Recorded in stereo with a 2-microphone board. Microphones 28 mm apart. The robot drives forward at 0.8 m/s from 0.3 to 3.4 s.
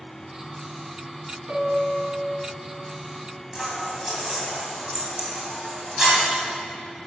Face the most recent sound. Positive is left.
turn(degrees=-15)  # may be behind; listen again after turning